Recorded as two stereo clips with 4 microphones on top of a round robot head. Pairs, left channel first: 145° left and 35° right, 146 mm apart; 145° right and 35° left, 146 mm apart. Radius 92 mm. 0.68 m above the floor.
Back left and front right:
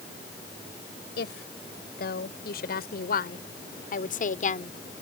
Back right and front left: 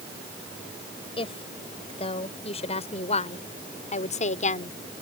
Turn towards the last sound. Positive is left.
turn(degrees=180)